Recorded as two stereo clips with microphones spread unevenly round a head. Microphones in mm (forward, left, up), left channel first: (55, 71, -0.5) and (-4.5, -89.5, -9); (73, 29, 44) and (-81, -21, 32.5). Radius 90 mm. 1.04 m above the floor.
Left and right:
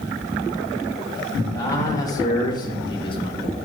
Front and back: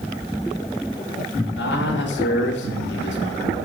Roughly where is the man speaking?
Ahead.